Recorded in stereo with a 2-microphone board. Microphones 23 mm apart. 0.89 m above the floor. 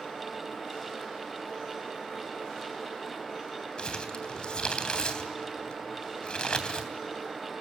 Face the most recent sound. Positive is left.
turn(degrees=45)  # may be behind; listen again after turning